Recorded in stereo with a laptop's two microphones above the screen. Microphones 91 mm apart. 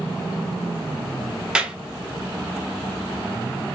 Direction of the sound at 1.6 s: 10° right (ahead or behind).